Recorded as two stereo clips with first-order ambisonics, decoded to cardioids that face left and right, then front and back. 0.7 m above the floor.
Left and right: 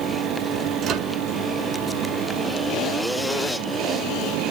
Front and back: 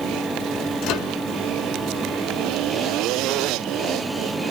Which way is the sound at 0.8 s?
35° right.